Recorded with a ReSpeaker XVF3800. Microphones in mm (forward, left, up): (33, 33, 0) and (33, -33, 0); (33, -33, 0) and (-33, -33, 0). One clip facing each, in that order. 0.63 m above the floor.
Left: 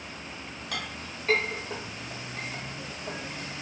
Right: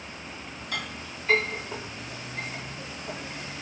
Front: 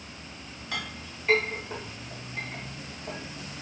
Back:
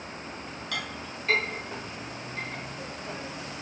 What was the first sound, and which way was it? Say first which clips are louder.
A clink: right 2 dB, even; 65° left.